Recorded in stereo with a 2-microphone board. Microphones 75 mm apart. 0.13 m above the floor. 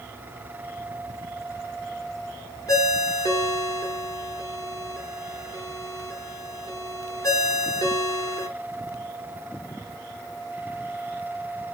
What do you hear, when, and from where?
2.7 s a ringtone: 50° left (ahead or behind), 1.0 m